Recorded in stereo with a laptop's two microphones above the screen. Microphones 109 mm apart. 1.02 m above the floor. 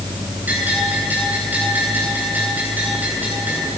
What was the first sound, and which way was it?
A bell, 15° right (ahead or behind).